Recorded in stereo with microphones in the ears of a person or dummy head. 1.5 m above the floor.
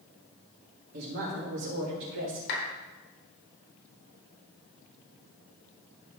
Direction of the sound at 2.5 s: 60° left (ahead or behind).